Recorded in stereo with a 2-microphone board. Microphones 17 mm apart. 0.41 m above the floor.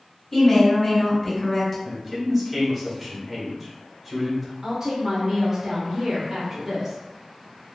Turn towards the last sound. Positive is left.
turn(degrees=-15)  # may be behind; listen again after turning